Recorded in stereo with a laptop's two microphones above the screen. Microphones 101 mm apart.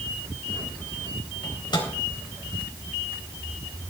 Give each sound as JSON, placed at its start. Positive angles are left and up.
{"t": 1.4, "sound": "a microwave", "side_deg": 45, "distance_m": 4.0}